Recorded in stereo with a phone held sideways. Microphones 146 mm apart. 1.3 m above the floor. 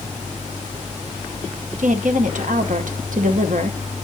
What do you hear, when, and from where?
1.8 s a woman speaking: 70° right (ahead or behind), 0.9 m